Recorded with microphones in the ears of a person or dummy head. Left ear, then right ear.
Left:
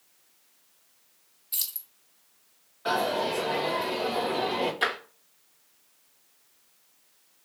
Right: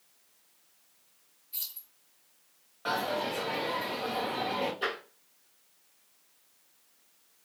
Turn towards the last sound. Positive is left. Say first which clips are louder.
# left 6 dB
turn(degrees=40)  # may be behind; listen again after turning